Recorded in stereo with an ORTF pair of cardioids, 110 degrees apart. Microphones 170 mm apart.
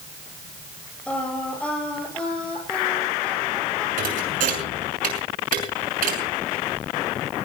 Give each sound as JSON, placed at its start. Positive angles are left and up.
{"t": 1.1, "sound": "singing", "azimuth_deg": 5, "distance_m": 8.5}
{"t": 4.0, "sound": "a thud", "azimuth_deg": -55, "distance_m": 6.5}